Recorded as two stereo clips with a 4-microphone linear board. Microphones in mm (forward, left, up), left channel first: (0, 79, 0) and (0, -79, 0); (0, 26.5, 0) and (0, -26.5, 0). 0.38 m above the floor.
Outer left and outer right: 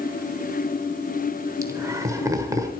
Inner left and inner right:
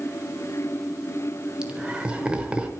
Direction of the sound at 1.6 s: 20° right (ahead or behind).